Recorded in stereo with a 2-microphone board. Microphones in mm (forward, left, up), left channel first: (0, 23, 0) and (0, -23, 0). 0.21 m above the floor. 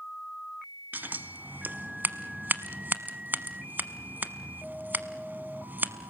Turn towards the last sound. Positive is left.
turn(degrees=-40)  # may be behind; listen again after turning